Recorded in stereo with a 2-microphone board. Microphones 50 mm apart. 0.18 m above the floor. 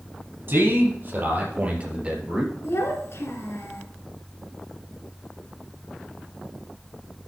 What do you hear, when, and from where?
0.5 s a man speaking: 45° right (ahead or behind), 4 m; by 2.5 s 10° right (ahead or behind), 2.5 m
2.6 s a child speaking: 60° left (ahead or behind), 1.9 m